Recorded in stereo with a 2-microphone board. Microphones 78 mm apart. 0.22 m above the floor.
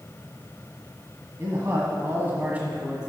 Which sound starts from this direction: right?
A man speaking, at 1.4 s.